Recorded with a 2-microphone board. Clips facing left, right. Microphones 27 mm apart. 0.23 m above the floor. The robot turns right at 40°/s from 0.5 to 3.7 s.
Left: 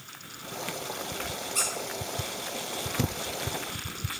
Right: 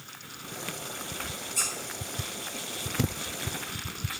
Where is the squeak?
55° left (ahead or behind), 1.8 m; by 1.7 s 60° left (ahead or behind), 1.8 m.